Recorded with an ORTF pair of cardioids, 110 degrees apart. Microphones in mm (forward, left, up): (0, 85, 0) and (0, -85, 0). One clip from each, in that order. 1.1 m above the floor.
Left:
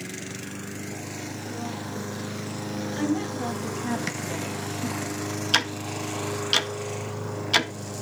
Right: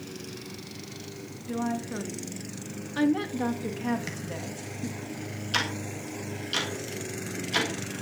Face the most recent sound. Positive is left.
turn(degrees=60)